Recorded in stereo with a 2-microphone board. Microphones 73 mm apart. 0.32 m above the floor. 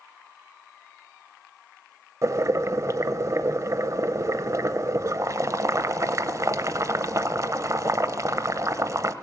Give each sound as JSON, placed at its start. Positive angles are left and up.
{"t": 2.2, "sound": "boiling", "side_deg": -45, "distance_m": 0.6}